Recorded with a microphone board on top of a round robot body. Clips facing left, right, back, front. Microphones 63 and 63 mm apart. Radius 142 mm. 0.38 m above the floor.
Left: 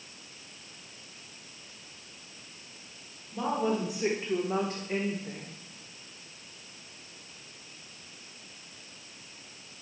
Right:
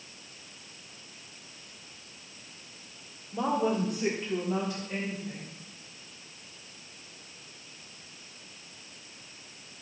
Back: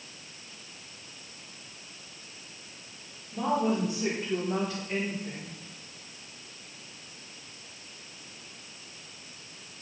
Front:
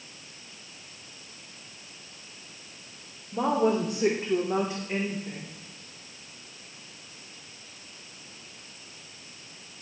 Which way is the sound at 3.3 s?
10° right.